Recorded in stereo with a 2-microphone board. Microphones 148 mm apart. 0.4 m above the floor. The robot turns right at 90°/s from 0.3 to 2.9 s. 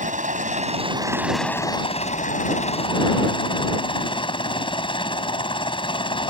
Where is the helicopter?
95° right; by 6.3 s 140° left.